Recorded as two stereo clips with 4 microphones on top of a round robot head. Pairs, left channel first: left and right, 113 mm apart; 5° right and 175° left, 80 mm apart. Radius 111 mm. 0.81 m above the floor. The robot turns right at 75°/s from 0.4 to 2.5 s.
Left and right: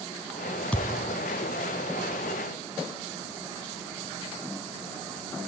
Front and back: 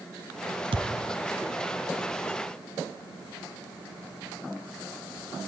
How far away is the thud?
About 1.6 m.